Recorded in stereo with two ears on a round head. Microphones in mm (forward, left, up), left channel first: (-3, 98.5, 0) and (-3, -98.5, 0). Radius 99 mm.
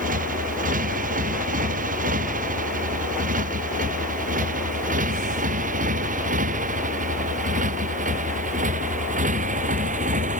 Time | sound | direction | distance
0.0 | a motorcycle | 40° right (ahead or behind) | ?